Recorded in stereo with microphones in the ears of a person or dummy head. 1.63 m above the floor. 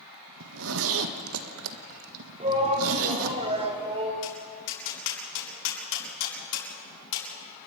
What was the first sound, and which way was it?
A zipper, 70° right (ahead or behind).